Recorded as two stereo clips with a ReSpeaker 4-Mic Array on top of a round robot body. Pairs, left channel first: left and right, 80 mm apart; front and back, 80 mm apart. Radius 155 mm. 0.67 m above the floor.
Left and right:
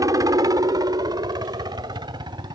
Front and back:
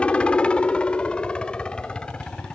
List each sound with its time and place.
0.0 s a helicopter: 70° right; by 2.5 s 80° right